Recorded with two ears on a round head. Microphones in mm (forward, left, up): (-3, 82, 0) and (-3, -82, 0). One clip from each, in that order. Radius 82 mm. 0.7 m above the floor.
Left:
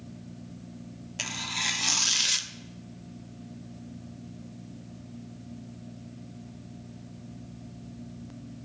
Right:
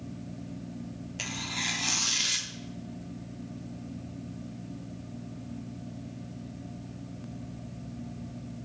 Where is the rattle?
I don't hear a rattle.